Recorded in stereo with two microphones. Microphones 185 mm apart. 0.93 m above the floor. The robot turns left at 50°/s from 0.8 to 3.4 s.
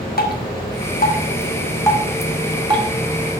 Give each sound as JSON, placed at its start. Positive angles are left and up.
{"t": 0.2, "sound": "dripping", "side_deg": 65, "distance_m": 1.5}